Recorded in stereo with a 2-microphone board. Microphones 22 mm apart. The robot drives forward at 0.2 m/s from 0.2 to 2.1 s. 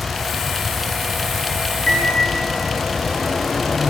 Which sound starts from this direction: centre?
A microwave, at 1.9 s.